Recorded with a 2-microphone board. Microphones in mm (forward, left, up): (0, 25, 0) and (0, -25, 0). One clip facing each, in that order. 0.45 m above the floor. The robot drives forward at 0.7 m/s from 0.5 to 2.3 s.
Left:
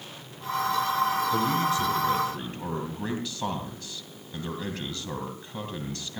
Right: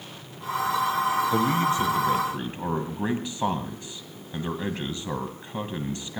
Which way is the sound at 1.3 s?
30° right (ahead or behind).